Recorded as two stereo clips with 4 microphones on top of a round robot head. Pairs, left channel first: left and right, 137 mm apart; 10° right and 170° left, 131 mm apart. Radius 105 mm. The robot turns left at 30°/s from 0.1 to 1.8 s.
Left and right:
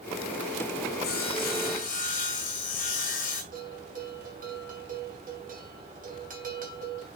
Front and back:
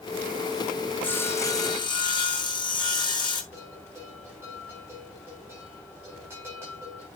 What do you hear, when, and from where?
1.0 s sawing: 70° left, 2 m; by 3.4 s 45° left, 2 m
3.5 s a bell: 110° right, 3 m